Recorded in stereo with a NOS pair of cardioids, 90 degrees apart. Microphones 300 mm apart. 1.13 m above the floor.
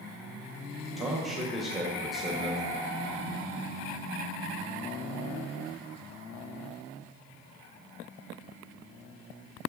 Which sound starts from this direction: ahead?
A man speaking, at 1.0 s.